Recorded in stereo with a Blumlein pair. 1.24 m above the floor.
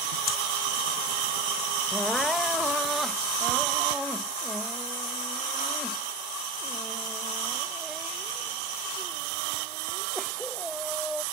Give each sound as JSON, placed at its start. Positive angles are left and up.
{"t": 0.3, "sound": "breathing", "azimuth_deg": 30}
{"t": 1.9, "sound": "crying", "azimuth_deg": 0}